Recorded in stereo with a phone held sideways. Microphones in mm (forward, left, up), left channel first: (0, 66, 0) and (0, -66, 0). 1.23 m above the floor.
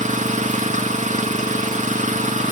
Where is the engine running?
70° right (ahead or behind), 1.8 m.